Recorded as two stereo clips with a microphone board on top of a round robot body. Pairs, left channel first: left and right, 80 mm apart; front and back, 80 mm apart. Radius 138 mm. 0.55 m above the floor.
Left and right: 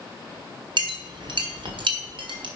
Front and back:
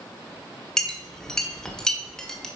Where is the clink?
85° right, 1.5 m.